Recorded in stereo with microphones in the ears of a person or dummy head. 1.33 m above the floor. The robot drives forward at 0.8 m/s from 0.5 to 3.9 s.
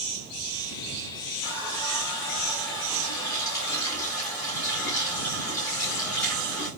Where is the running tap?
20° left (ahead or behind), 5.5 m; by 6.7 s 15° left (ahead or behind), 7 m.